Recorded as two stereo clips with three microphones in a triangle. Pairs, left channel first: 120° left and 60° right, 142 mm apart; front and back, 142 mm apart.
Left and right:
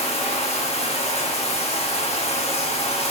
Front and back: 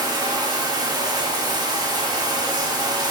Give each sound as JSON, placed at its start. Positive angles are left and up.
{"t": 0.0, "sound": "running water", "azimuth_deg": 130, "distance_m": 1.1}